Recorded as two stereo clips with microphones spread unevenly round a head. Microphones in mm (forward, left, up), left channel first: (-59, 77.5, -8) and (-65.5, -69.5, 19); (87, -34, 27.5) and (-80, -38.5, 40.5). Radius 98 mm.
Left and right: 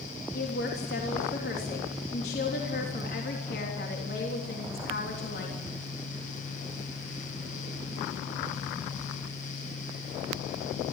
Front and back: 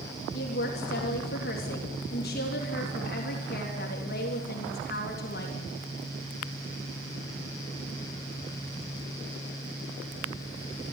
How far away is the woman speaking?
About 3.5 m.